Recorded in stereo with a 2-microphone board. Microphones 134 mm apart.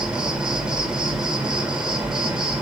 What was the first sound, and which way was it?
An insect, 5° right (ahead or behind).